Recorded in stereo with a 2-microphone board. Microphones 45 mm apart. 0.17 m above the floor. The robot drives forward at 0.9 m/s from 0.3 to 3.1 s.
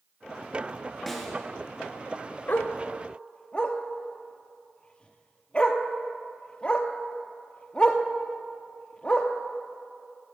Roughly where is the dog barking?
Left.